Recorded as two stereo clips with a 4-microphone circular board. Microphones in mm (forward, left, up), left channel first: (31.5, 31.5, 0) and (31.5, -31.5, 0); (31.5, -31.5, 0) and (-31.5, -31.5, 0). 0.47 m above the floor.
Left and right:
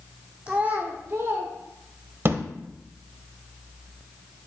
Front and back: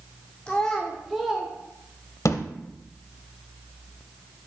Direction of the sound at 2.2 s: 35° right.